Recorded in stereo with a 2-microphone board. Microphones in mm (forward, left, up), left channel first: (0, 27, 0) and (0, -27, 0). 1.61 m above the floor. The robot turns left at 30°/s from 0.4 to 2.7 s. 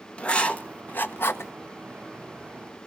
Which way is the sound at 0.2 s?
20° left (ahead or behind).